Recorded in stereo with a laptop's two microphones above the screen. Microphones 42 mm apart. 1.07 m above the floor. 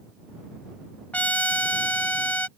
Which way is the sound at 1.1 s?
35° left (ahead or behind).